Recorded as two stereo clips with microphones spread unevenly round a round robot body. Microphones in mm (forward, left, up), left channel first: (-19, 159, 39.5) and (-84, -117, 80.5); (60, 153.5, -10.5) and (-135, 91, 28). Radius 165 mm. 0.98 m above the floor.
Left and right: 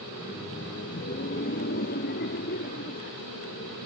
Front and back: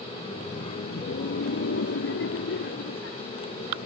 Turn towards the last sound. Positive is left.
turn(degrees=20)